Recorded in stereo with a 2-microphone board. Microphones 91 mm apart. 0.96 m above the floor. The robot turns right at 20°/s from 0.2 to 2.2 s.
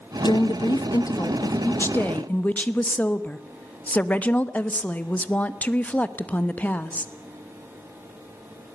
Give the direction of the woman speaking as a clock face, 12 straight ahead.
8 o'clock.